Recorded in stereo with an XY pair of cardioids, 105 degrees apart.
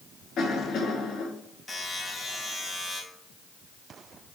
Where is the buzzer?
30° left, 2.5 m.